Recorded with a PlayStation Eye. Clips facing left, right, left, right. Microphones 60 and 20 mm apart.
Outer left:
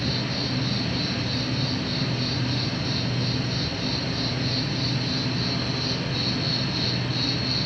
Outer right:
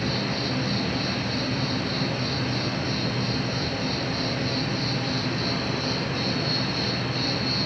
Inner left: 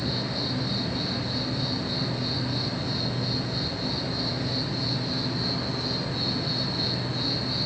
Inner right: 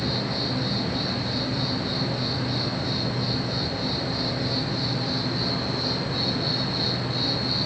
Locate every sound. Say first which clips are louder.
0.0 s an insect: outer right 1 dB, inner right 2 dB; 30° right (ahead or behind), 1.3 m